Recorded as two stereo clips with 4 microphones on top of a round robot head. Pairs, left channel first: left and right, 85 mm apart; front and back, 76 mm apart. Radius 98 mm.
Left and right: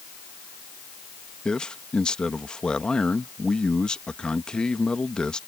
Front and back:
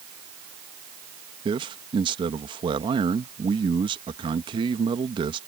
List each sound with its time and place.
1.4 s a man speaking: 170° left